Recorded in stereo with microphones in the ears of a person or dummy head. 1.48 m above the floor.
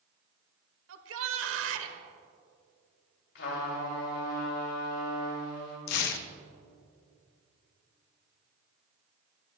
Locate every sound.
0.9 s a shout: 75° right (ahead or behind), 1.2 m
3.4 s a trumpet: 65° left (ahead or behind), 3 m
5.9 s tearing paper: 60° left (ahead or behind), 0.7 m